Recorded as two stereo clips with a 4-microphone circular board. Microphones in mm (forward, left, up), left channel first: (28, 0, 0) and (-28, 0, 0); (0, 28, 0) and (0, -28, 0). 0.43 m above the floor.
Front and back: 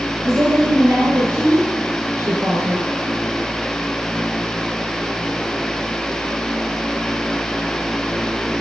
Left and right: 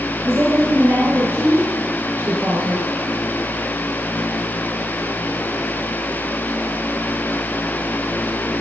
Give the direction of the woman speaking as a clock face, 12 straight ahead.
5 o'clock.